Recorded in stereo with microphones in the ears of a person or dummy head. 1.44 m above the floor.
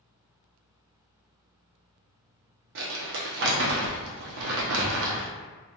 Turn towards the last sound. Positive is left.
turn(degrees=-60)  # may be behind; listen again after turning